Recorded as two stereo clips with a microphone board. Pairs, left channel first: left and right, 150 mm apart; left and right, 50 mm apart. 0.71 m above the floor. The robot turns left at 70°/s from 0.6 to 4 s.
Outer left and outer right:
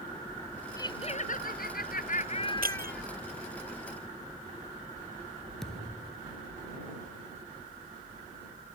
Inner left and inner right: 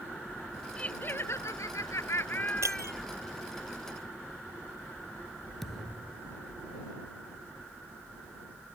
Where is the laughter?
155° left; by 3.0 s straight ahead.